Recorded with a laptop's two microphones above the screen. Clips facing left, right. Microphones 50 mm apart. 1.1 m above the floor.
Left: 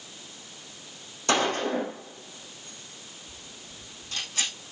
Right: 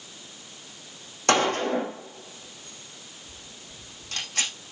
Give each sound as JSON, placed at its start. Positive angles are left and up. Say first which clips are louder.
{"t": 1.3, "sound": "a gunshot", "louder": "right 3 dB", "side_deg": -55, "distance_m": 9.0}